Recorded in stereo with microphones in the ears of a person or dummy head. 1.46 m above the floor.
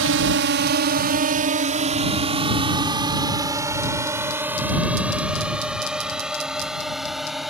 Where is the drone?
60° right (ahead or behind); by 7.5 s centre (ahead or behind).